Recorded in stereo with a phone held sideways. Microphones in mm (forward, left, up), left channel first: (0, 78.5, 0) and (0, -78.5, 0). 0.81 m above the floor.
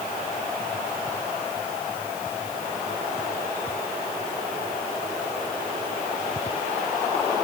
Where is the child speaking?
I don't hear a child speaking.